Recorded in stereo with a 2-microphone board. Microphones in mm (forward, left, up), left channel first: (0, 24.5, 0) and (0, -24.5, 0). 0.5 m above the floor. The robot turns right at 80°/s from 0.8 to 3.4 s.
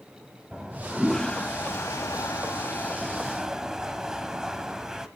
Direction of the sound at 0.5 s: 15° right.